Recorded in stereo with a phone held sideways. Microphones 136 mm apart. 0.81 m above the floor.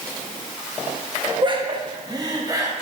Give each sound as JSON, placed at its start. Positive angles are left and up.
{"t": 1.4, "sound": "laughter", "side_deg": -35, "distance_m": 1.2}